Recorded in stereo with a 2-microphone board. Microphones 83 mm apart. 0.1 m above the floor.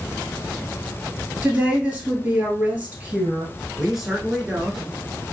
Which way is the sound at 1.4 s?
20° right (ahead or behind).